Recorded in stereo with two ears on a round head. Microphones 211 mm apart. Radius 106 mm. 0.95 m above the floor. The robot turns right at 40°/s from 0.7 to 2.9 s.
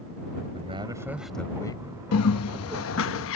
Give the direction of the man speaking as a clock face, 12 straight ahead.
1 o'clock.